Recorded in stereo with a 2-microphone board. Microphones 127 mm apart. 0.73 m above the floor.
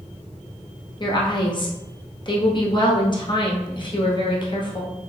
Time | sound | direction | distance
1.0 | a woman speaking | 40° left (ahead or behind) | 1.0 m